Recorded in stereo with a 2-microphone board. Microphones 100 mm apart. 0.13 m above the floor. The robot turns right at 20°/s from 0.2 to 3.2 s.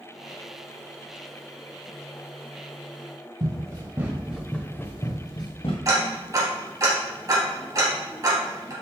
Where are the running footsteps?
45° right (ahead or behind), 1.4 m; by 5.8 s 65° left (ahead or behind), 1.3 m.